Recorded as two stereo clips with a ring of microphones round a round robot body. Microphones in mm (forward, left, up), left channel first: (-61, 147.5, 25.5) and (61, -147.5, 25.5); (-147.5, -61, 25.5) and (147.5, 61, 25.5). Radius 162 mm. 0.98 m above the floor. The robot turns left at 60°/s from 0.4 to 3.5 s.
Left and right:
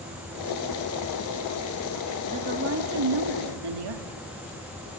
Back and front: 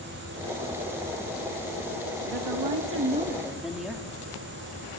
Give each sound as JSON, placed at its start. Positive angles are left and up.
{"t": 2.3, "sound": "a woman speaking", "azimuth_deg": 10, "distance_m": 1.9}